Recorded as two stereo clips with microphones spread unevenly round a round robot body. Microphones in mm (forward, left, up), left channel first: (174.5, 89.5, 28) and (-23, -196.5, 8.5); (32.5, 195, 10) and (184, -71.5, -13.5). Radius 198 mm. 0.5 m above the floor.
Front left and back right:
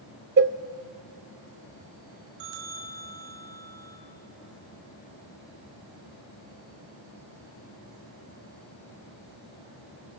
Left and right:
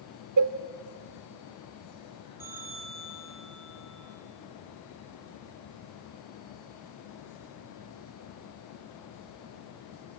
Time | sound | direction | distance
0.4 | a cowbell | 70° right | 0.8 m
2.4 | a bell | 145° right | 3 m